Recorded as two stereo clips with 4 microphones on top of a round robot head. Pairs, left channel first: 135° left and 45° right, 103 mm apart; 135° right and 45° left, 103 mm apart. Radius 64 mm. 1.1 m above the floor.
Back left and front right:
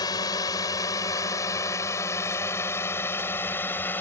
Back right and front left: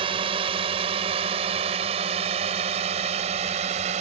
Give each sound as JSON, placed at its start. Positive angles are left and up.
{"t": 0.0, "sound": "a drone", "azimuth_deg": 80}